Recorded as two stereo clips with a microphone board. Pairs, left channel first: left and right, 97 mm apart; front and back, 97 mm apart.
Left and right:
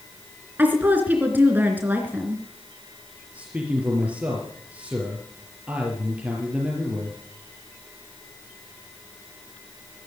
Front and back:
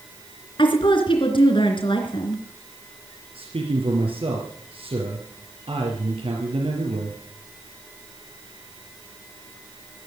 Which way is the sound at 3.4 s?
165° right.